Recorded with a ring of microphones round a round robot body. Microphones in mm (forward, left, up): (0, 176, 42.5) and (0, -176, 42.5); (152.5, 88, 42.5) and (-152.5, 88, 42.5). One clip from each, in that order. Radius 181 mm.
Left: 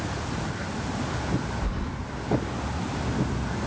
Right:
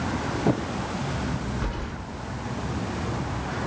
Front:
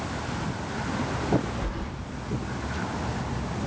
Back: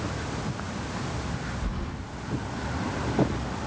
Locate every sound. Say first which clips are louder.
1.6 s keys jangling: right 1 dB, front 2 dB; 60° right, 0.8 m